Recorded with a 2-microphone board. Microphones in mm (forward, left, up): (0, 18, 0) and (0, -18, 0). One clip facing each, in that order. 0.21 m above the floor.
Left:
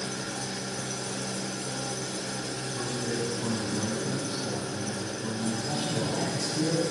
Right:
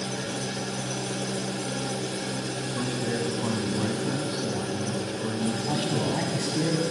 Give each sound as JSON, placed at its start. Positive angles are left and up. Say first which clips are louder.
{"t": 0.0, "sound": "an engine running", "louder": "right 3 dB", "side_deg": -35, "distance_m": 1.3}
{"t": 2.8, "sound": "a man speaking", "louder": "right 3 dB", "side_deg": -25, "distance_m": 1.2}
{"t": 5.7, "sound": "a man speaking", "louder": "right 3 dB", "side_deg": -40, "distance_m": 1.7}